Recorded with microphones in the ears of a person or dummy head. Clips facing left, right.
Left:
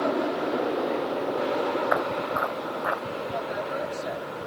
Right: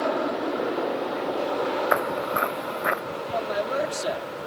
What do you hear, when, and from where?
1.9 s footsteps: 45° right (ahead or behind); by 3.0 s 35° right (ahead or behind)
3.3 s a man speaking: 75° right (ahead or behind)